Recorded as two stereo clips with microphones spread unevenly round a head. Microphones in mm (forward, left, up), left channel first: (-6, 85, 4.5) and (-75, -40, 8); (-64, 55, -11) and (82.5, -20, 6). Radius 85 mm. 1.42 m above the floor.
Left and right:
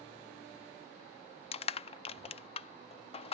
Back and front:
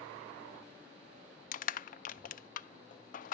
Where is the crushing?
110° left, 0.5 m.